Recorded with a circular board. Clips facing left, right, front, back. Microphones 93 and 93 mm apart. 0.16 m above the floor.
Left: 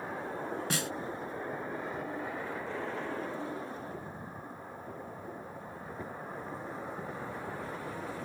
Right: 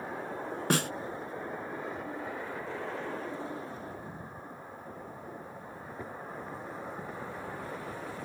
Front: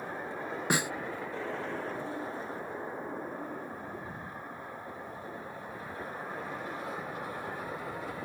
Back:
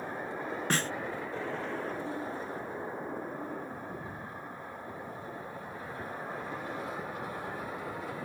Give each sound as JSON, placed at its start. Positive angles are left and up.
{"t": 0.7, "sound": "a snare drum", "azimuth_deg": -75}